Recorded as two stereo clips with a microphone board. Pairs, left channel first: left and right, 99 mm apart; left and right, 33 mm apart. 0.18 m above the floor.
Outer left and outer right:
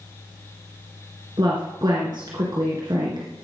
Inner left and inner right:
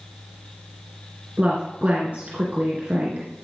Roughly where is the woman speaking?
Right.